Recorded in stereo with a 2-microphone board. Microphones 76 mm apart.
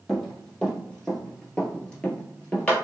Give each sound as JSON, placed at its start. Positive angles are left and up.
{"t": 0.1, "sound": "running footsteps", "side_deg": 5, "distance_m": 1.5}